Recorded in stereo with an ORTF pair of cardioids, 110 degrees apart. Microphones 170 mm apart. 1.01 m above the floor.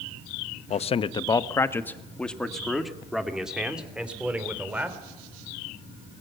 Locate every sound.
0.7 s a man speaking: 45° left, 0.7 m; by 5.0 s 10° right, 3 m